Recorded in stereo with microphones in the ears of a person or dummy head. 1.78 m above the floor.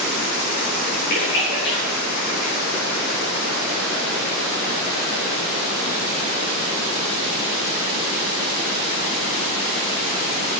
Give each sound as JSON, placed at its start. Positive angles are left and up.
{"t": 1.1, "sound": "a splash", "side_deg": 50, "distance_m": 1.7}